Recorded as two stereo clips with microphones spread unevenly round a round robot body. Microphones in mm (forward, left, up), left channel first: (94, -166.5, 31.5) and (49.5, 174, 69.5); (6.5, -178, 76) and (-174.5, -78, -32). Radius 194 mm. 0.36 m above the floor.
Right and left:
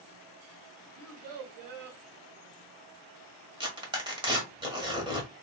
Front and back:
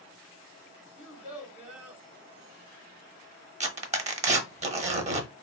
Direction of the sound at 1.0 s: 120° left.